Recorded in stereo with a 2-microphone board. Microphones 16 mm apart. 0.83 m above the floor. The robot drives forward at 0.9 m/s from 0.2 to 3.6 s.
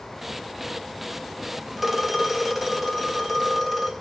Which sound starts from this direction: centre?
A phone ringing, at 1.8 s.